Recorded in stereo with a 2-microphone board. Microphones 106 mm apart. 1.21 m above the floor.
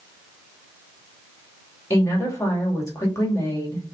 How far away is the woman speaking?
About 2.5 m.